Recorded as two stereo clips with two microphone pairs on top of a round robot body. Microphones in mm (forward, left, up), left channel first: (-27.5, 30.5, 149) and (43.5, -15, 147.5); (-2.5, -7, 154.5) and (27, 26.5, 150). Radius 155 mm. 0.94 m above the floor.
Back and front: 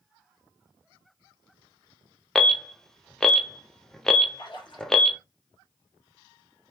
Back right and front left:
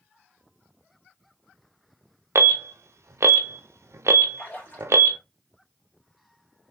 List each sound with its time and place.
2.4 s an alarm: 60° left, 0.6 m
4.4 s a splash: 175° left, 1.9 m